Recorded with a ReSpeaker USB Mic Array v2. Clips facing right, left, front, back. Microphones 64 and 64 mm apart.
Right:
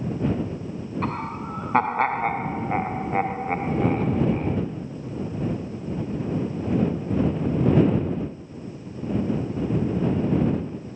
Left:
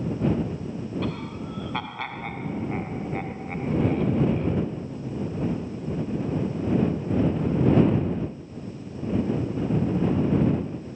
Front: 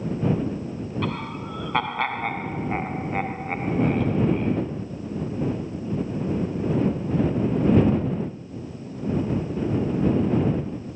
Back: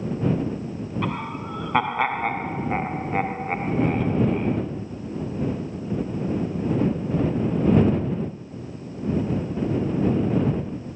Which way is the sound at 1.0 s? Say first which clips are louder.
Right 3 dB, back 2 dB; 105° right.